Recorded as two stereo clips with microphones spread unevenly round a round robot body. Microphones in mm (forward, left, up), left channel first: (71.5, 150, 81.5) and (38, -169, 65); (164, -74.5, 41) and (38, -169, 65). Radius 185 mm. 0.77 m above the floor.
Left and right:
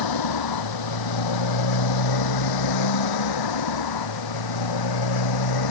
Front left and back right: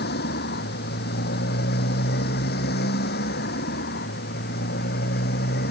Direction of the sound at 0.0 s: 70° left.